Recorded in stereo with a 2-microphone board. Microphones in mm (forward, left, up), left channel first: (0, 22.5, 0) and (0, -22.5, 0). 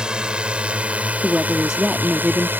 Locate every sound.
0.0 s a drone: 20° right (ahead or behind); by 2.6 s 50° right (ahead or behind)
1.2 s a woman speaking: 15° right (ahead or behind)